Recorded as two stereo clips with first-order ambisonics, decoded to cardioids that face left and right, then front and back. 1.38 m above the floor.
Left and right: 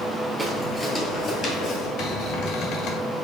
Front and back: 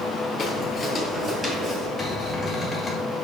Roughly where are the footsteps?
Ahead.